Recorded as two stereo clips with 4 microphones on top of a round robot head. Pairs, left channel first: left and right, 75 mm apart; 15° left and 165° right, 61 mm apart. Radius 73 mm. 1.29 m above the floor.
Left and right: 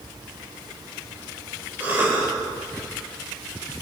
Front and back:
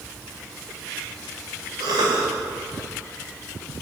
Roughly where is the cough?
Behind right.